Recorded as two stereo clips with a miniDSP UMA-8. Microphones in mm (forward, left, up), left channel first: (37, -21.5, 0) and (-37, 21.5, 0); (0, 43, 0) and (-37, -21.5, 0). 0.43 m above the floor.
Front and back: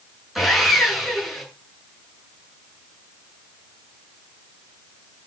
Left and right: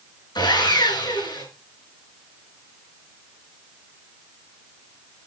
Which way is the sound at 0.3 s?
60° left.